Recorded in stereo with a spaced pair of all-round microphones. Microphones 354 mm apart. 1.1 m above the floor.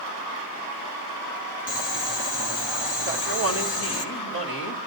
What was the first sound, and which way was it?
Boiling, 55° left (ahead or behind).